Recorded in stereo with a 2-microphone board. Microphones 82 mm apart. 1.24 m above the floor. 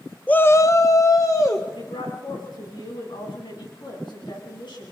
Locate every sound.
0.3 s a shout: 15° left (ahead or behind), 0.5 m; by 1.6 s 40° left (ahead or behind), 1.7 m
1.8 s a woman speaking: 70° left (ahead or behind), 9 m